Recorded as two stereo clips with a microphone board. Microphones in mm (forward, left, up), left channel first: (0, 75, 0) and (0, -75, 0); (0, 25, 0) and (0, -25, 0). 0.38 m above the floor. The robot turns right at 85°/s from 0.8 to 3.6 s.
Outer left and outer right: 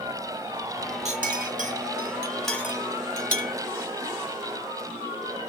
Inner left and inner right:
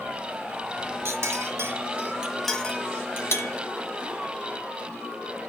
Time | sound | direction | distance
1.1 | a clink | 50° right (ahead or behind) | 0.9 m